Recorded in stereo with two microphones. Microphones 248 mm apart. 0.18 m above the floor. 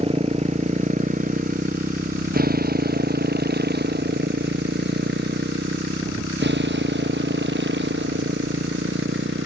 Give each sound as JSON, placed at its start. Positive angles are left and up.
{"t": 0.0, "sound": "a motorcycle", "side_deg": -25}